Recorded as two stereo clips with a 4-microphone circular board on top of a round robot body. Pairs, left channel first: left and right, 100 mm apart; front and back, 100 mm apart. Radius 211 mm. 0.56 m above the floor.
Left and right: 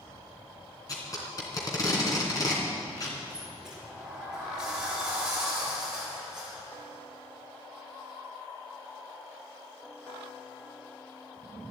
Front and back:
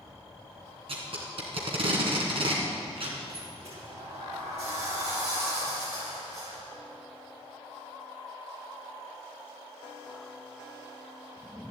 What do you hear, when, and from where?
0.9 s tape being pulled: 145° left, 2.5 m
3.3 s a sliding door: 175° right, 4.5 m